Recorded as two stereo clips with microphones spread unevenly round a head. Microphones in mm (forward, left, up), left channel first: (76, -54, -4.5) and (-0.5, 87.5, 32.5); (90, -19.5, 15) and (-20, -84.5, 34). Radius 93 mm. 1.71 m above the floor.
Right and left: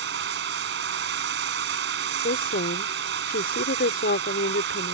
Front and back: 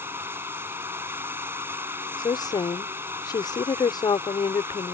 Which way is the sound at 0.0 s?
135° left.